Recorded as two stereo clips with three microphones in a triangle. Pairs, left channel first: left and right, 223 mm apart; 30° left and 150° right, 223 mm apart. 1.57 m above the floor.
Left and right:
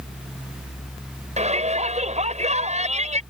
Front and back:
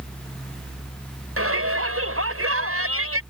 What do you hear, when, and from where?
1.4 s a shout: 150° right